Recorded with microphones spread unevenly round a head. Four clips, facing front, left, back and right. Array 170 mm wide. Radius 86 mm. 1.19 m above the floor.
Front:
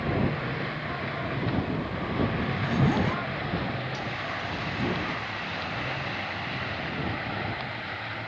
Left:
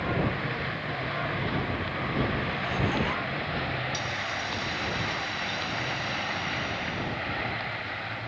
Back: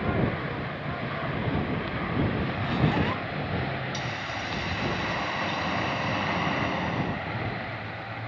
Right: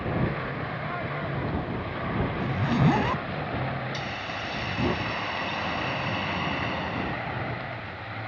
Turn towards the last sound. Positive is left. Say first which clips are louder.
# left 1 dB, even
turn(degrees=-160)